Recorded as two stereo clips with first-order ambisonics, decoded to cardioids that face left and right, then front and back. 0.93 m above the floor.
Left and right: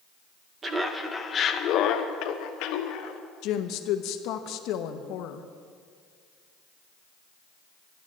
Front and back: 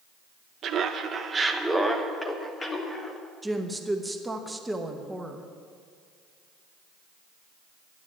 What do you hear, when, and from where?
0.6 s laughter: 150° right, 0.6 m; by 3.2 s 75° left, 1.3 m
3.4 s a woman speaking: 100° left, 0.9 m